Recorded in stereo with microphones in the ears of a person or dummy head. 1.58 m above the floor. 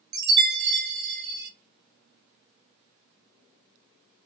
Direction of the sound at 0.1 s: 55° right (ahead or behind).